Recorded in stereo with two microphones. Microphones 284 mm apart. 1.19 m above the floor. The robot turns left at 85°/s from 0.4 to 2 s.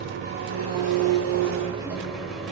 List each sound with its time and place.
0.0 s an engine running: 45° right, 1.6 m; by 2.5 s straight behind, 1.6 m